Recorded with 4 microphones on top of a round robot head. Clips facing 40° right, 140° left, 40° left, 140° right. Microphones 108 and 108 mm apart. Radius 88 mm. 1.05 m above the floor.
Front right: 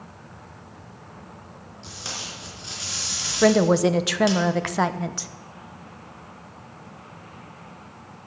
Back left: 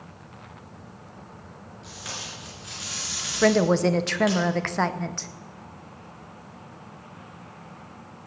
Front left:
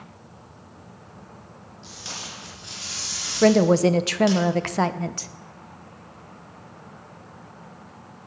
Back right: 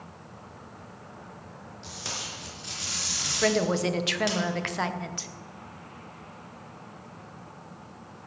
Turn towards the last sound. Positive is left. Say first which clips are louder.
# front right 2 dB, front left 9 dB
turn(degrees=40)